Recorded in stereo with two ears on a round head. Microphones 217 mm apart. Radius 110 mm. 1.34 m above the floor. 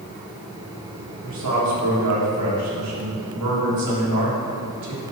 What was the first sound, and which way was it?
A man speaking, 75° right (ahead or behind).